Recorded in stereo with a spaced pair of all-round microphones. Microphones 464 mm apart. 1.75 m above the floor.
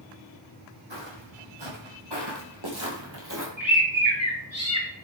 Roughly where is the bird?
Right.